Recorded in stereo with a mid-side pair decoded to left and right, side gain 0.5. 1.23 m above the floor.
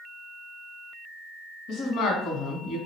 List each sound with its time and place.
1.7 s a woman speaking: 70° left, 0.9 m